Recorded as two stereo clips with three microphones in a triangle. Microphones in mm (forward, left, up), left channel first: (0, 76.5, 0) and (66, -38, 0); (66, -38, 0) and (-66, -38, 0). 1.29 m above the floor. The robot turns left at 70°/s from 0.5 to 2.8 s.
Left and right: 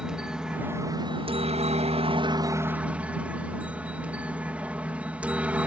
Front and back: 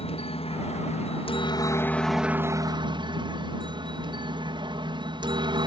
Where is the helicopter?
25° left; by 5.7 s 135° right.